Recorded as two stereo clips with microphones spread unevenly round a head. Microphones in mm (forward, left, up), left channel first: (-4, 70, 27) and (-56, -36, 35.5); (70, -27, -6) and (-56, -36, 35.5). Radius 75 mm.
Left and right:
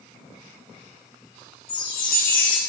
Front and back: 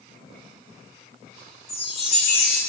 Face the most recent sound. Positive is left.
turn(degrees=60)